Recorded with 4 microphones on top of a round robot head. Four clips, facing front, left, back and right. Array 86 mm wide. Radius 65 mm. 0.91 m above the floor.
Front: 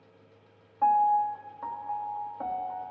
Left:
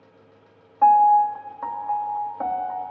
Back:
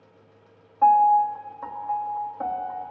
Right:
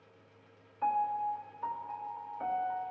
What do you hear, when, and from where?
0.8 s a piano: 100° left, 0.9 m